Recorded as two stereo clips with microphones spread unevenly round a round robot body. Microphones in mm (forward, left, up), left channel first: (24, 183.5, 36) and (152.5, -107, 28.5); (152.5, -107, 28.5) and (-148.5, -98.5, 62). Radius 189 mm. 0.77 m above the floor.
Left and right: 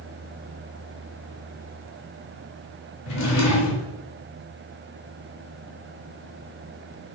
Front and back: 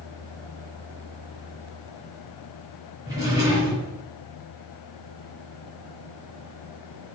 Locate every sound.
3.1 s a drawer: 100° left, 1.6 m